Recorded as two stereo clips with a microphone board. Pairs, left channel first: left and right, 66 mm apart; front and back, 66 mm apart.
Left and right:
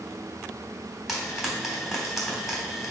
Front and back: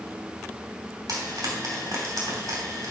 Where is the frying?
175° right, 3.5 m.